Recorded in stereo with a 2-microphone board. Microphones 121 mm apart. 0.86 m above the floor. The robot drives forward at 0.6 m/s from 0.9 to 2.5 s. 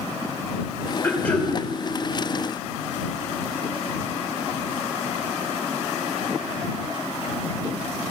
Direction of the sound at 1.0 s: 15° left (ahead or behind).